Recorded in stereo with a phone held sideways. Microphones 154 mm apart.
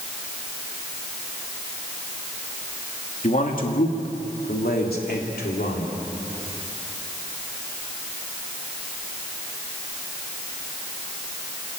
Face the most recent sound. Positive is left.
turn(degrees=85)